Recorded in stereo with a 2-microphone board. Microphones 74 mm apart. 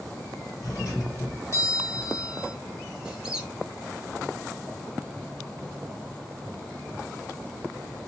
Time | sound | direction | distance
0.6 | a doorbell | 40° left (ahead or behind) | 1.8 m
3.0 | a squeak | 10° right (ahead or behind) | 0.8 m